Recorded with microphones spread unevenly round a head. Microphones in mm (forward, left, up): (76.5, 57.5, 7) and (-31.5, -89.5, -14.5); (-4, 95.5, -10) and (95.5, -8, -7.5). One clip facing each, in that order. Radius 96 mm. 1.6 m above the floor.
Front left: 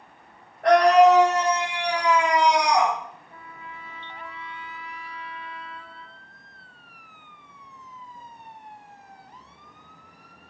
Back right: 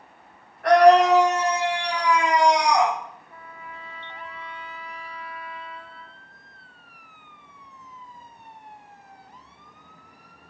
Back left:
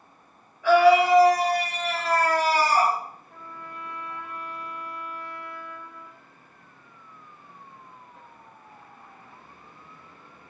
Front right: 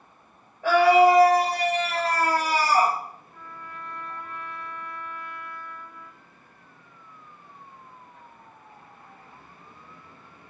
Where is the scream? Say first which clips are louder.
Back right 1 dB, even; straight ahead, 3.5 m; by 3.0 s 40° right, 3 m.